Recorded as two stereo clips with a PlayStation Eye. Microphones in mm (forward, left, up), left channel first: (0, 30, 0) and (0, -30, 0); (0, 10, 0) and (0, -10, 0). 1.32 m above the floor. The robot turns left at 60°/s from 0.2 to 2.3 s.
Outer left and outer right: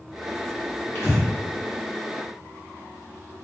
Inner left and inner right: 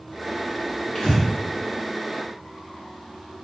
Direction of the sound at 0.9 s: 40° left (ahead or behind).